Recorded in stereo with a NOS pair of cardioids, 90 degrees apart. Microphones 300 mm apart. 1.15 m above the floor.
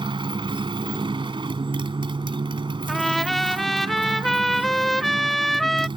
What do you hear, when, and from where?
0.0 s a motorcycle: 15° right
2.9 s a trumpet: straight ahead